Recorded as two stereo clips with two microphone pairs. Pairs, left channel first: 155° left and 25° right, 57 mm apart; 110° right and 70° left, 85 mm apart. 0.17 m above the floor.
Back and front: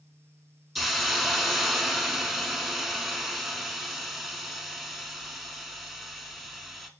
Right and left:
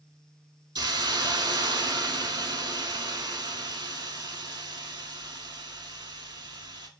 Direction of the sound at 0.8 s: 65° left.